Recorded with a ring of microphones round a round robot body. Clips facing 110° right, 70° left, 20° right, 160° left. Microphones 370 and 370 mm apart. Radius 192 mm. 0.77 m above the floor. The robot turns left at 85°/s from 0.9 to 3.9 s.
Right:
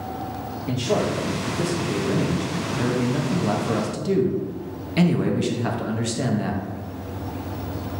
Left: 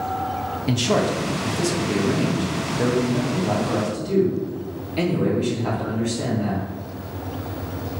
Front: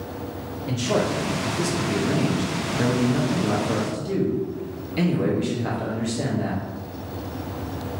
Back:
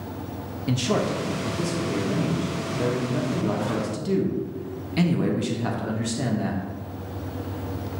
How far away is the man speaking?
About 1.0 m.